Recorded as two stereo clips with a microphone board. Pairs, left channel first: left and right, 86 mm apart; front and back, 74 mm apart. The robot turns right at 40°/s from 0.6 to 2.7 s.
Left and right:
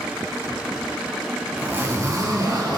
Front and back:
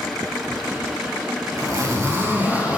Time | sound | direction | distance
1.5 | a zipper | 155° right | 3.5 m